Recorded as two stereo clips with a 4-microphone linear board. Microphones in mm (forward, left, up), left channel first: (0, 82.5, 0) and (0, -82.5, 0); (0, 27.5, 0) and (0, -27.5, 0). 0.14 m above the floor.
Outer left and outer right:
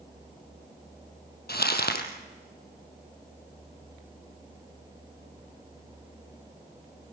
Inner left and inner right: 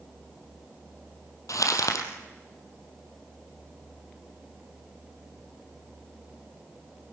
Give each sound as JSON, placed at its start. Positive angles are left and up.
{"t": 1.5, "sound": "crumpling", "side_deg": 75, "distance_m": 3.0}